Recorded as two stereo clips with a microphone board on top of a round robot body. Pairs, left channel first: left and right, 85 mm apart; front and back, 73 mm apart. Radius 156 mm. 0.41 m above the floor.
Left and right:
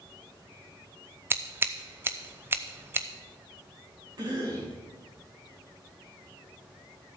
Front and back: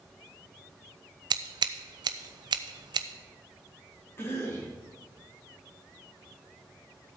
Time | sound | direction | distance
1.3 | scissors | 155° right | 0.6 m
4.2 | a cough | 55° right | 5 m